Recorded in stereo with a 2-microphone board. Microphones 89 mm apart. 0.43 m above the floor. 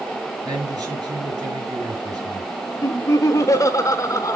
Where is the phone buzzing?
No phone buzzing in this recording.